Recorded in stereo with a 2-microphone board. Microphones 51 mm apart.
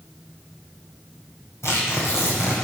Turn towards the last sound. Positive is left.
turn(degrees=65)  # may be behind; listen again after turning